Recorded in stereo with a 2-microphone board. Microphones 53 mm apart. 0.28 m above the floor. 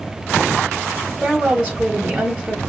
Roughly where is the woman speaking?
Right.